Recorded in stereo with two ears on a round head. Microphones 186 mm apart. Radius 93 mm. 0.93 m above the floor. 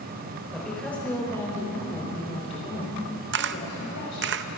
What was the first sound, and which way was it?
A woman speaking, centre (ahead or behind).